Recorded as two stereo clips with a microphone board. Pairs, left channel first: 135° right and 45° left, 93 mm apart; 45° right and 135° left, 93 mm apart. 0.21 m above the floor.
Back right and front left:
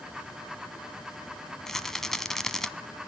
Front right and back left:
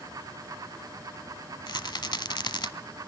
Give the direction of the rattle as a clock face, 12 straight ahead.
2 o'clock.